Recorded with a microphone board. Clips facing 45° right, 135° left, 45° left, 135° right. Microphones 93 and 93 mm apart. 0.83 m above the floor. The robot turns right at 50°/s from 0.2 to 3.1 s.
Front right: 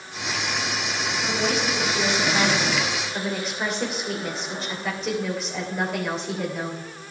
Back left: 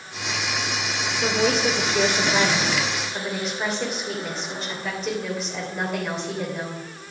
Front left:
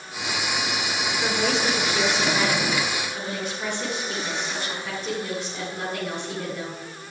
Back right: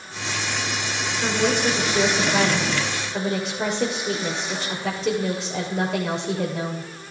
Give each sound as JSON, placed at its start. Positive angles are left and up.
{"t": 1.2, "sound": "a woman speaking", "azimuth_deg": 130, "distance_m": 3.0}